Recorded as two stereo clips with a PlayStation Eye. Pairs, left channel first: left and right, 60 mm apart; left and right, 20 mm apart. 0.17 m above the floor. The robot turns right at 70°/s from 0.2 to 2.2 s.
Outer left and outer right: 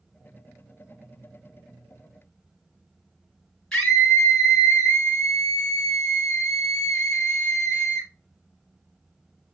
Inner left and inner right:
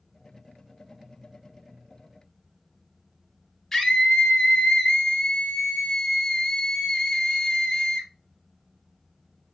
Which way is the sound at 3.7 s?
10° left (ahead or behind).